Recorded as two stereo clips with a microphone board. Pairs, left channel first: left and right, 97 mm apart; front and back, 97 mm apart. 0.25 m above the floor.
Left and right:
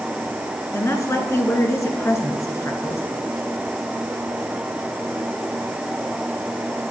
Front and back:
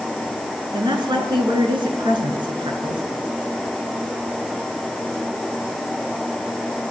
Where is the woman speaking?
150° left, 2.5 m.